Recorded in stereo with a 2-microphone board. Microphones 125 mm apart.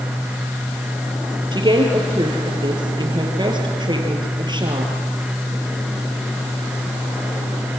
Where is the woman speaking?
35° right (ahead or behind), 4 m.